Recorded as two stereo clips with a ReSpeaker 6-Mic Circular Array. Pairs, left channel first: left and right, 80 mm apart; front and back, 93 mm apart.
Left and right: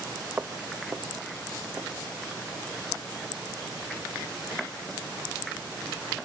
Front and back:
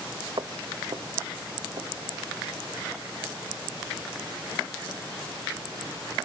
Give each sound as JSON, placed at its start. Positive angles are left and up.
{"t": 0.4, "sound": "footsteps", "azimuth_deg": -155, "distance_m": 0.8}